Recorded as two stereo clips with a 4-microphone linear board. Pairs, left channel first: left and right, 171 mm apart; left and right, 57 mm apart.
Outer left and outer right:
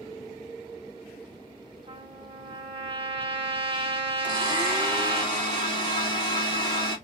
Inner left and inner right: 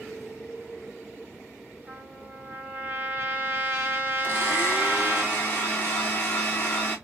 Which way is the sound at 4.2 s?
30° left (ahead or behind).